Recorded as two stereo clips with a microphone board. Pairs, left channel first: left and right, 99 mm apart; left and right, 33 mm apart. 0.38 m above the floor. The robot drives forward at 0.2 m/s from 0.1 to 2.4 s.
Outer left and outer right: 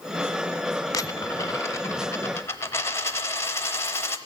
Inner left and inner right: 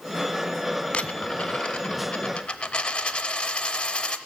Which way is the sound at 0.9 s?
35° left (ahead or behind).